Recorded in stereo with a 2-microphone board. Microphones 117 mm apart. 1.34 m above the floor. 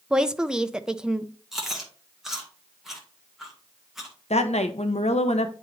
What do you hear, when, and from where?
0.1 s a woman speaking: 5° right (ahead or behind), 0.6 m
1.5 s chewing: 5° right (ahead or behind), 1.8 m
4.3 s a woman speaking: 80° left, 0.7 m